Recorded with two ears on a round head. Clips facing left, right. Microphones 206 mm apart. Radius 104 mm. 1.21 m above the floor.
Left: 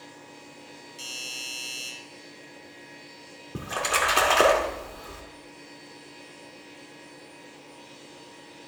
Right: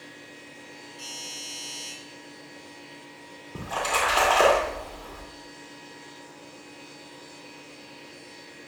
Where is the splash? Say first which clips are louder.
Right 1 dB; 30° left (ahead or behind), 2.5 m.